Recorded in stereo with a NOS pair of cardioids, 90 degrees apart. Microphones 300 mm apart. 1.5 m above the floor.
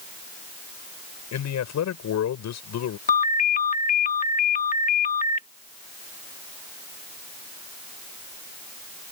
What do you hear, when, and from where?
1.3 s a man speaking: 65° left
3.1 s a ringtone: 25° left